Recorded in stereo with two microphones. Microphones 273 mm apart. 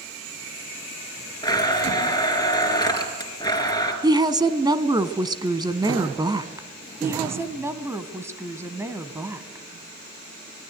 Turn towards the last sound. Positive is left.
turn(degrees=-10)  # may be behind; listen again after turning